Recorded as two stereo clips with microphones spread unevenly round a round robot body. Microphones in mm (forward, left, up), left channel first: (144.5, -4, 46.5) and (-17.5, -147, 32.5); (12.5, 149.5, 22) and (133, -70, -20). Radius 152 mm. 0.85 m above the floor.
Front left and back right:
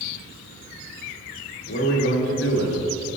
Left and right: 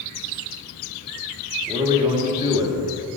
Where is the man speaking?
10° left, 1.4 m.